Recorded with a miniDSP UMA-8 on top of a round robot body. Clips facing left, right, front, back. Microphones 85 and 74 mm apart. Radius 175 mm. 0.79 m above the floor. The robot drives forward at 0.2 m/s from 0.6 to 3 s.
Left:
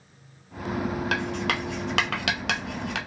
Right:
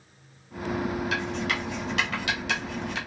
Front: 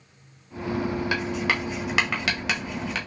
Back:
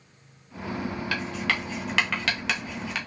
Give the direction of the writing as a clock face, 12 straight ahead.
10 o'clock.